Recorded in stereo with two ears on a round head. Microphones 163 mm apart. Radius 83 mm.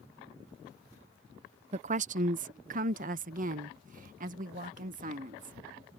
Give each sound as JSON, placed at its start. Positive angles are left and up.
{"t": 1.7, "sound": "a woman speaking", "side_deg": -35}